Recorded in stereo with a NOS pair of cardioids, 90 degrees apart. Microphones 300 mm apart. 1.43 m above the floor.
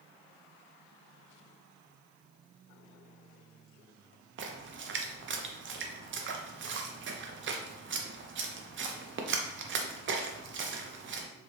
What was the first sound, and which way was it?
A splash, 40° right.